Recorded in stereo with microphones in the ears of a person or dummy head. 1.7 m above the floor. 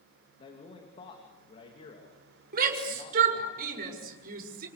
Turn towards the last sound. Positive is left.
turn(degrees=-55)  # may be behind; listen again after turning